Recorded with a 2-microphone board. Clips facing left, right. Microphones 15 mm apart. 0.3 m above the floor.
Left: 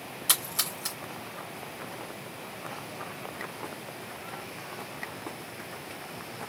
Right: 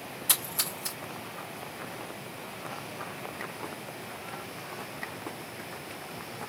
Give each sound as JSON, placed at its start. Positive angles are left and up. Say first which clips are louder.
{"t": 0.3, "sound": "a splash", "louder": "left 2 dB", "side_deg": 30, "distance_m": 2.0}